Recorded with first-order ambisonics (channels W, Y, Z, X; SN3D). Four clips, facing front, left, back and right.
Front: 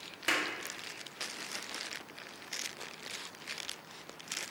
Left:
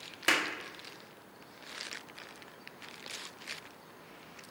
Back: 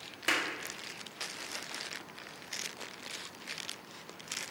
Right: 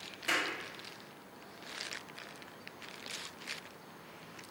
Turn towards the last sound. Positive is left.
turn(degrees=95)